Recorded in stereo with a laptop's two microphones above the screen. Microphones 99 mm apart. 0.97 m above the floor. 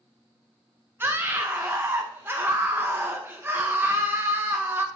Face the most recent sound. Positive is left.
turn(degrees=-25)  # may be behind; listen again after turning